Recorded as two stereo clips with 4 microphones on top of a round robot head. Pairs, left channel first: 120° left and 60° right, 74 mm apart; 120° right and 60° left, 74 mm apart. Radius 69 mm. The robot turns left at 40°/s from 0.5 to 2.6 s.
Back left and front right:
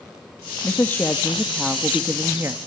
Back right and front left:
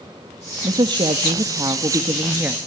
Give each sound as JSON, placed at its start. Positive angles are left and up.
{"t": 0.6, "sound": "a woman speaking", "azimuth_deg": 70, "distance_m": 1.4}